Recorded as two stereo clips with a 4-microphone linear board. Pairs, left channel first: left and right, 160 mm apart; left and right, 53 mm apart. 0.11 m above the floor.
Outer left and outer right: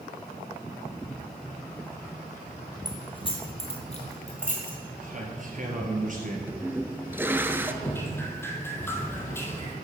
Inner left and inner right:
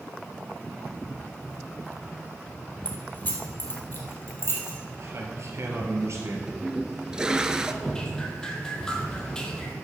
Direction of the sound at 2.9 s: 25° left (ahead or behind).